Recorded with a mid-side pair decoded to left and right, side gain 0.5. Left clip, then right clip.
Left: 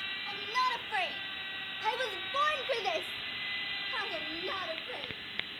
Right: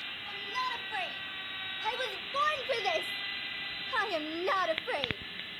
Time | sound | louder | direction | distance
0.3 | a shout | left 3 dB | 30° left | 2.0 m